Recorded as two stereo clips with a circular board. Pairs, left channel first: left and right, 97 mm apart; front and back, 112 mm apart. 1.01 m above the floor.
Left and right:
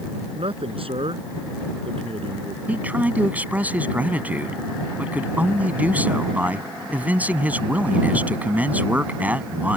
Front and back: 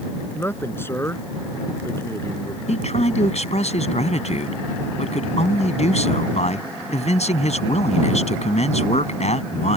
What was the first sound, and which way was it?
A man speaking, 70° right.